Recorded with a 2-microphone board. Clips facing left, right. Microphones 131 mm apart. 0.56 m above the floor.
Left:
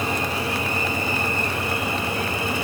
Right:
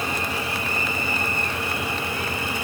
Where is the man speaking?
I don't hear a man speaking.